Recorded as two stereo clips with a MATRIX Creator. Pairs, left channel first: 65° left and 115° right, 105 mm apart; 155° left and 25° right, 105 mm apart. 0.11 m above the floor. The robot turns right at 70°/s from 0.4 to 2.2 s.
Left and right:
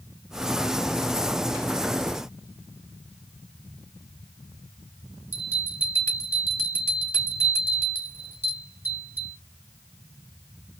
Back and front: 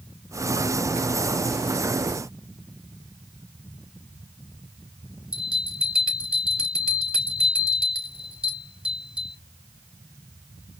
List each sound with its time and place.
5.3 s a bell: 45° left, 1.7 m